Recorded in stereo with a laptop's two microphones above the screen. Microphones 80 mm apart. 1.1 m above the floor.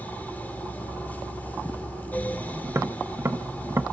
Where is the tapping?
35° right (ahead or behind), 0.7 m.